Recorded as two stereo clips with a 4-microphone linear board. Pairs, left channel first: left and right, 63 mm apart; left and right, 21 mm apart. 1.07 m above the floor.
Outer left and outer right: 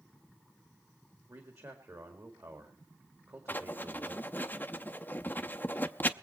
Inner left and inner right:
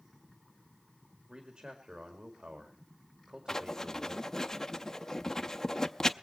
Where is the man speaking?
50° right (ahead or behind), 1.9 m.